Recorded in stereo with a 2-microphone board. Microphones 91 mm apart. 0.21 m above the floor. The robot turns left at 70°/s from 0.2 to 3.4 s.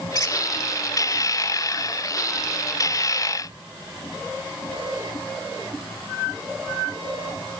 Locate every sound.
0.1 s a squeak: 40° left (ahead or behind), 0.9 m; by 0.4 s 35° left (ahead or behind), 0.9 m